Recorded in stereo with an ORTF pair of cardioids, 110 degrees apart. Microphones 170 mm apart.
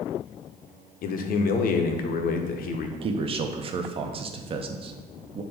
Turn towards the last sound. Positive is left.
turn(degrees=-35)